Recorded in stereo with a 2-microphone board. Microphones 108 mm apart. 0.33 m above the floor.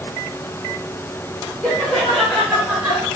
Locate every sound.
1.6 s laughter: 10° left (ahead or behind), 1.6 m; by 3.1 s 20° right (ahead or behind), 1.4 m